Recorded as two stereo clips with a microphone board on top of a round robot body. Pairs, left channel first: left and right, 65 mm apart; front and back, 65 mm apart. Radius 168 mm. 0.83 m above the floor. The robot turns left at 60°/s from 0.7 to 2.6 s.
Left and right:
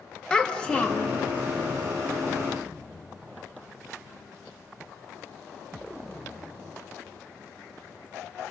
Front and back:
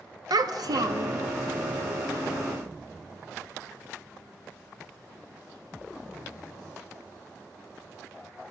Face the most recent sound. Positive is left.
turn(degrees=55)